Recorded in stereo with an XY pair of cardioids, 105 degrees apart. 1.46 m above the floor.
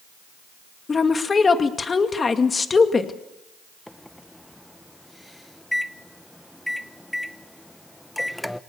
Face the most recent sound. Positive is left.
turn(degrees=5)